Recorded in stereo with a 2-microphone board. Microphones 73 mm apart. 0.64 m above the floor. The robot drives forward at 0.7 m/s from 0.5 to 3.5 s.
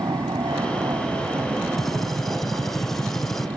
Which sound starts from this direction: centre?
A gunshot, at 1.8 s.